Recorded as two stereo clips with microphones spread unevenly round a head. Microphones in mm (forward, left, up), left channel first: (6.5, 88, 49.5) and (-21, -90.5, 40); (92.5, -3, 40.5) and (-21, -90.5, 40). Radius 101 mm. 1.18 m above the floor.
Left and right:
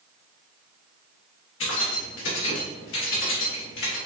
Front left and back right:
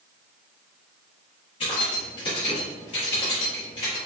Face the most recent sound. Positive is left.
turn(degrees=100)